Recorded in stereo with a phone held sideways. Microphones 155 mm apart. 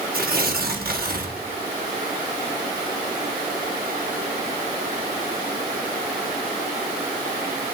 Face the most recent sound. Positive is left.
turn(degrees=-65)  # may be behind; listen again after turning